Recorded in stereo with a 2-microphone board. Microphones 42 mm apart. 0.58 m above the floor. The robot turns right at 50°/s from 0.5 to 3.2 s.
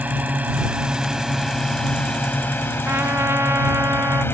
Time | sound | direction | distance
0.0 | a drone | 40° right (ahead or behind) | ?
2.9 | a trumpet | 60° right (ahead or behind) | ?